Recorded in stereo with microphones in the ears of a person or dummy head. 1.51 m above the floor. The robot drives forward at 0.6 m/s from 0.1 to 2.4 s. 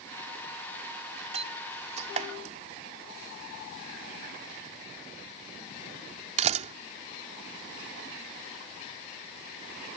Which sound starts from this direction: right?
A door slam, at 1.3 s.